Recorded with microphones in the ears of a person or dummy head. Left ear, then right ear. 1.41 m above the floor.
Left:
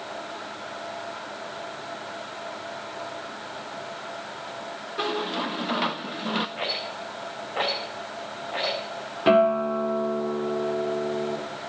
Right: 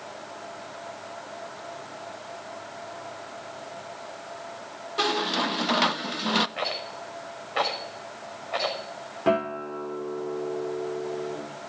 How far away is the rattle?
About 5 m.